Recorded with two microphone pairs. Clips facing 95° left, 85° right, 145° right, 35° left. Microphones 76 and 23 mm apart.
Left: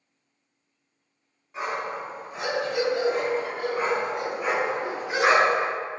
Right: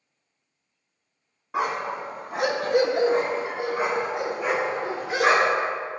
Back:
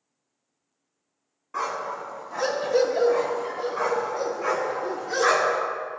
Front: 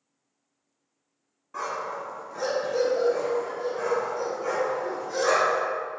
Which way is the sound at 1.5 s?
80° right.